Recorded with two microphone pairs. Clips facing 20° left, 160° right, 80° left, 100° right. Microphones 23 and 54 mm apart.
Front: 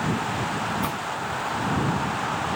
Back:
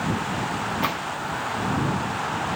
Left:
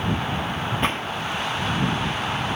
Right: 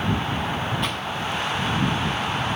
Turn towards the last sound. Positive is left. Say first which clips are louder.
# back 2 dB, left 3 dB
turn(degrees=140)